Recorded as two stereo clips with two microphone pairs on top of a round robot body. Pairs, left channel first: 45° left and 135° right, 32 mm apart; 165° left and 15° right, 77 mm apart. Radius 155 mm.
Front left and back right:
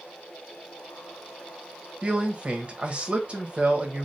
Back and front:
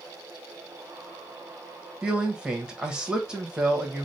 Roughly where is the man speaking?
Right.